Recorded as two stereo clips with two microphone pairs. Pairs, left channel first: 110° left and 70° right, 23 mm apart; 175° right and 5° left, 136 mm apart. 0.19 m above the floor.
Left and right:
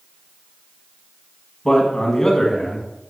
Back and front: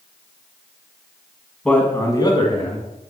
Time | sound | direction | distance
1.6 | a man speaking | 110° left | 1.3 m